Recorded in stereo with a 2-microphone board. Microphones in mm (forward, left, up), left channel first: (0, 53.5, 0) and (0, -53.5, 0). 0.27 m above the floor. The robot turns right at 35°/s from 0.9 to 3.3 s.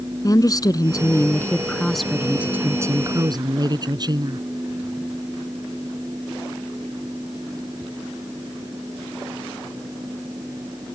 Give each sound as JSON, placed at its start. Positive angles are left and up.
{"t": 0.2, "sound": "a woman speaking", "azimuth_deg": 140}